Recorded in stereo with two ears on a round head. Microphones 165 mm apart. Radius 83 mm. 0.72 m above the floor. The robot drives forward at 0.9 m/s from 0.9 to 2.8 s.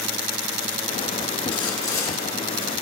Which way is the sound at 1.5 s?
25° left (ahead or behind).